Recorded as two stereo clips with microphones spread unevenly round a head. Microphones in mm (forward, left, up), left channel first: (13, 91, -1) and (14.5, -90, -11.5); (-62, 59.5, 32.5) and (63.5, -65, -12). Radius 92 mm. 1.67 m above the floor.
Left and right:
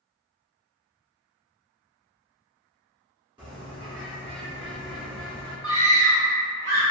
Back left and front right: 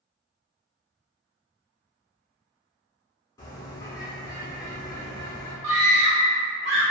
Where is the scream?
75° right, 1.5 m.